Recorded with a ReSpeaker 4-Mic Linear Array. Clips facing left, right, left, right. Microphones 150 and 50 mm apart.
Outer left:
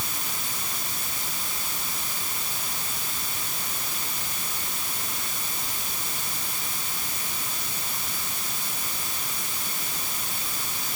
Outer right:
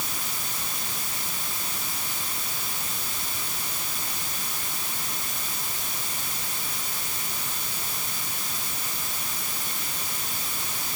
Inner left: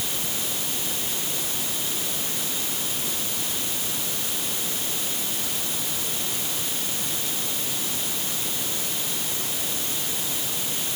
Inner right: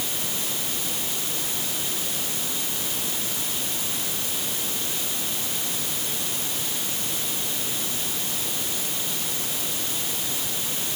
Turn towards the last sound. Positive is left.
No sound to turn to.